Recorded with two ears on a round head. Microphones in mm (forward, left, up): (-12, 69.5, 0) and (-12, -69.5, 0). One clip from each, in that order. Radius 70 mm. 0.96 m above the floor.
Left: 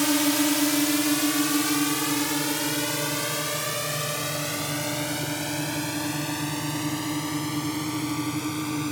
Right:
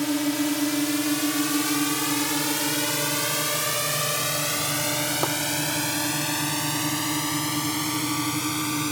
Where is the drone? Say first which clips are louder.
Left 2 dB; 35° left (ahead or behind); by 8.9 s 40° right (ahead or behind).